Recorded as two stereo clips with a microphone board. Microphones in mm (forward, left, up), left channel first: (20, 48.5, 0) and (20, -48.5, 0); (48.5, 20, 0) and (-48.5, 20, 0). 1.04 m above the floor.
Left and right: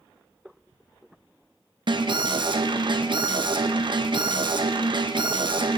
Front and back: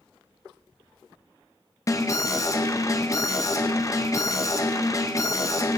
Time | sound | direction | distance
1.9 | an alarm | 55° right | 0.7 m